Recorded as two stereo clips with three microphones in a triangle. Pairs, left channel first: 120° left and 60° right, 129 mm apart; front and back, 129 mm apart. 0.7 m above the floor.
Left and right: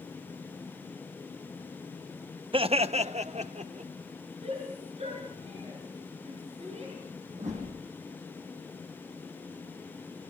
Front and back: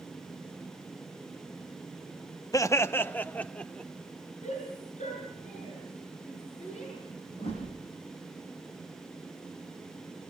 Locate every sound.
2.5 s laughter: 50° right, 0.7 m; by 3.9 s 80° right, 1.9 m
4.4 s a shout: 25° right, 8 m
7.3 s a whoosh: 40° right, 10 m